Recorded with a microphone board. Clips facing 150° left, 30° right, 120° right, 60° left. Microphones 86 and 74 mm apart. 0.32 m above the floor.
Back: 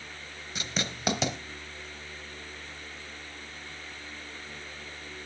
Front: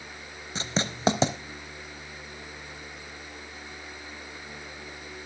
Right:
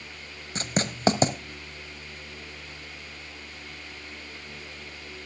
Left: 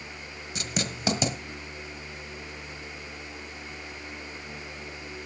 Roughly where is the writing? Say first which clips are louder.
Front 5 dB, right 4 dB; right.